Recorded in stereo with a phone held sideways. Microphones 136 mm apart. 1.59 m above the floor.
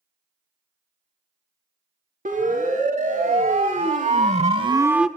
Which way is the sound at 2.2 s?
80° right.